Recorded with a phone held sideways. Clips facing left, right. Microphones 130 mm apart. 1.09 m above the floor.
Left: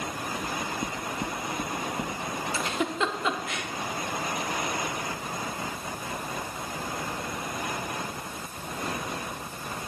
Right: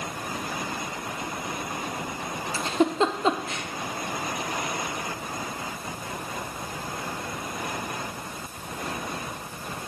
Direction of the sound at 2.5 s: 35° right (ahead or behind).